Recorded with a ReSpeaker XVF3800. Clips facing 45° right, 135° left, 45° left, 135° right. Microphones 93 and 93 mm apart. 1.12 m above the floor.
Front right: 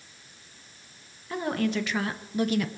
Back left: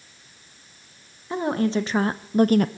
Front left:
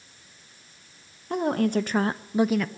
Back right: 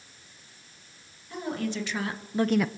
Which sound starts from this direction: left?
A woman speaking, at 1.3 s.